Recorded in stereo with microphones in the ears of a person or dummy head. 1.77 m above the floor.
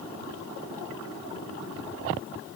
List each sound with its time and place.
Only background noise.